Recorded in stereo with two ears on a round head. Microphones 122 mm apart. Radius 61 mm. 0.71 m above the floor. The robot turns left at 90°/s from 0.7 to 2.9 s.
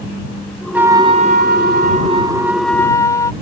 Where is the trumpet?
10° right; by 3.3 s 155° left.